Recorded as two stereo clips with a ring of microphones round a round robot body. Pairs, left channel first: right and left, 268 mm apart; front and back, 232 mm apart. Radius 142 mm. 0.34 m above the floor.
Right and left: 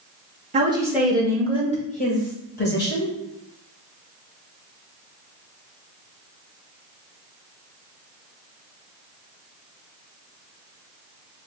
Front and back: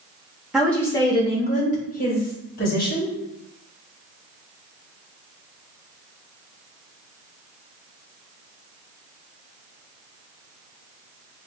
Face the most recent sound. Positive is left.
turn(degrees=-45)